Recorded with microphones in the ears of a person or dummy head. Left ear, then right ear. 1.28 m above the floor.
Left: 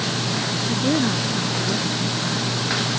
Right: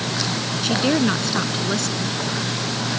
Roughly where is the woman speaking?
Right.